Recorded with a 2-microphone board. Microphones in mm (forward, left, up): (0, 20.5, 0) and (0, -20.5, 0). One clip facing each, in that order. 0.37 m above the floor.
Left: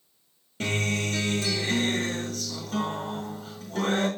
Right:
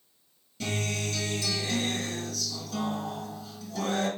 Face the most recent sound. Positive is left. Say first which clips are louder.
# left 4 dB
turn(degrees=45)  # may be behind; listen again after turning